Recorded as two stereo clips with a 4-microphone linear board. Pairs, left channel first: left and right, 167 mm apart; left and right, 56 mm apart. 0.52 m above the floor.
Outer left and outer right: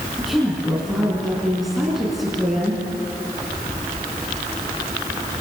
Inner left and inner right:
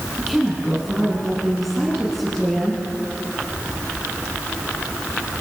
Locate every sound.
0.2 s a woman speaking: centre (ahead or behind), 5.5 m